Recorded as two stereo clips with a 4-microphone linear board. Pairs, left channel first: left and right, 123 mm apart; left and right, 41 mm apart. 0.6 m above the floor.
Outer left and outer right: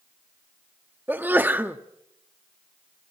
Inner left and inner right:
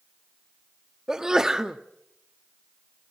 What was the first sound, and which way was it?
A sneeze, 15° right (ahead or behind).